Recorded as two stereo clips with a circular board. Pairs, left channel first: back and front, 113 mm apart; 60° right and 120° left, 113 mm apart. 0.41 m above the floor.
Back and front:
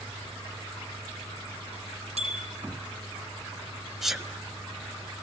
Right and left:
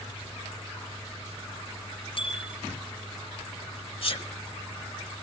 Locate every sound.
2.2 s a bicycle bell: 20° right, 9.5 m
4.0 s a sneeze: 85° right, 1.7 m